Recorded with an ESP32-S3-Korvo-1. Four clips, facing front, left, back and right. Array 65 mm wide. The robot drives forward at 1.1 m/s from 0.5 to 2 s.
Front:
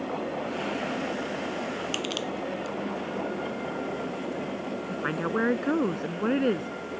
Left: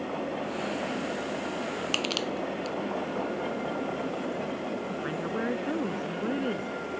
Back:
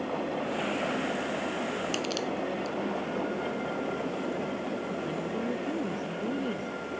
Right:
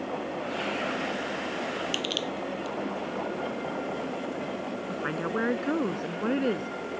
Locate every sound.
1.9 s crushing: 80° left
4.9 s a woman speaking: 20° right